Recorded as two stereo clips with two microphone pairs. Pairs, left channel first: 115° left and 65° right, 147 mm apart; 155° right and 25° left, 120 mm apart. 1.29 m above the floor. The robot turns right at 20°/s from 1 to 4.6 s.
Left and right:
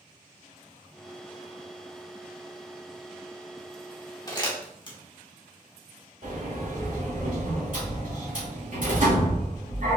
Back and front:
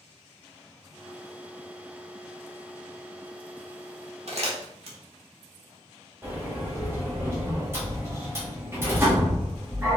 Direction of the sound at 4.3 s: 50° left.